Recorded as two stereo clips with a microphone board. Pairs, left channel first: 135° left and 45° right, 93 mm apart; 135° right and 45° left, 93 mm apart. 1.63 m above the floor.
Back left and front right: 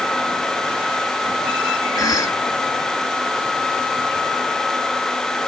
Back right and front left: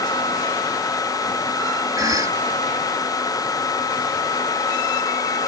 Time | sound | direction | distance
2.0 | a cough | 90° left | ?